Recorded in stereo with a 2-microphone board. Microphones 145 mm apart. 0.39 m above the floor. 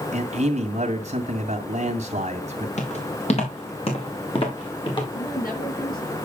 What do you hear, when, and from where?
0.1 s a man speaking: 50° right (ahead or behind), 2 m
2.8 s footsteps: 50° left (ahead or behind), 4.5 m; by 5.0 s 35° left (ahead or behind), 4.5 m
5.1 s a woman speaking: 75° left (ahead or behind), 8 m